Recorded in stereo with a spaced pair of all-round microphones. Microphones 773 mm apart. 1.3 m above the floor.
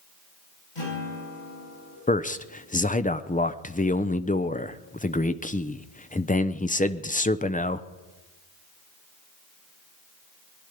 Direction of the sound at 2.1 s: 10° left (ahead or behind).